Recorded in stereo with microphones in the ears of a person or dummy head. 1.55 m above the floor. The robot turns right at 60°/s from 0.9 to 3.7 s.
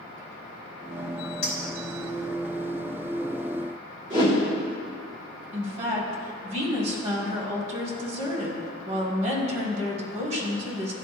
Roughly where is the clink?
Left.